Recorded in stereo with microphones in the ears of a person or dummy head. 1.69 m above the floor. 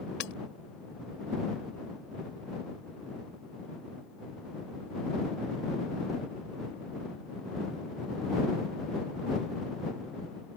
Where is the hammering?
70° left (ahead or behind).